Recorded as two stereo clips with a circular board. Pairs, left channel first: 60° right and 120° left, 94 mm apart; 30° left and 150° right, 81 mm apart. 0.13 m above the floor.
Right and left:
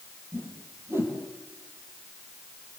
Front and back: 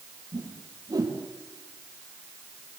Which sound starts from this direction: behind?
A whoosh, at 0.3 s.